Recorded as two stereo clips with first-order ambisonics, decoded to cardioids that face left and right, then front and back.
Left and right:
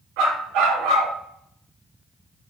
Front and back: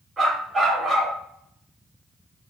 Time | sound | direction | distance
0.2 | a dog barking | 105° right | 4 m